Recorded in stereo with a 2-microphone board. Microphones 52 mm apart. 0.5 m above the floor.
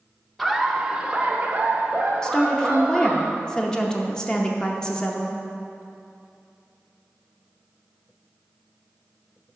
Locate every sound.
0.4 s laughter: centre (ahead or behind), 0.8 m; by 3.2 s 35° right (ahead or behind), 2.5 m
2.2 s a woman speaking: 15° left (ahead or behind), 0.8 m